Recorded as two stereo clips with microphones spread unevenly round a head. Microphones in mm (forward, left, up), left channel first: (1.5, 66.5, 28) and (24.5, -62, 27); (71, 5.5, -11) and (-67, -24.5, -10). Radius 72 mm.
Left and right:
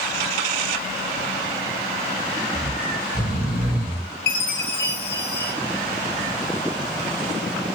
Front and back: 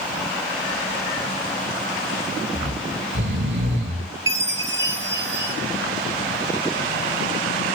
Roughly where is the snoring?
Behind.